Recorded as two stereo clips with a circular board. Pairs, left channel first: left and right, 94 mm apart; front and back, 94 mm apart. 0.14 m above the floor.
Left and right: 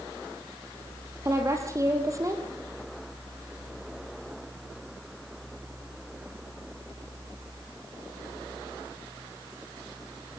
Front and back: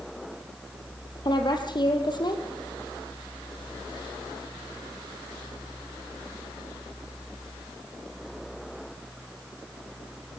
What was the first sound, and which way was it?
A woman speaking, 35° right.